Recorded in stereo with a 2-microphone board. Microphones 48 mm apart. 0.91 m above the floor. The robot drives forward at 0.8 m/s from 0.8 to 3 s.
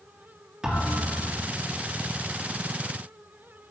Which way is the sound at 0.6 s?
15° right (ahead or behind).